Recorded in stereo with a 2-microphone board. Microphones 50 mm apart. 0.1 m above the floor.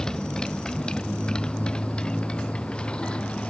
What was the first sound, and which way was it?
A motorcycle, 10° left (ahead or behind).